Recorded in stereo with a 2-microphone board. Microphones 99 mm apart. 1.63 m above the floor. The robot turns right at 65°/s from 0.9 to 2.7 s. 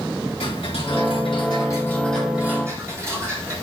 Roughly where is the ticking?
Left.